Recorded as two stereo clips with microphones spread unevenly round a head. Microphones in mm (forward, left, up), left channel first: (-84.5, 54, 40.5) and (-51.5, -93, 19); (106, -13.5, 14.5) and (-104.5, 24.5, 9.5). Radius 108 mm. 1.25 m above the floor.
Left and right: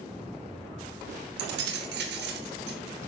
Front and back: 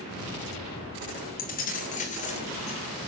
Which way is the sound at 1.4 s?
60° right.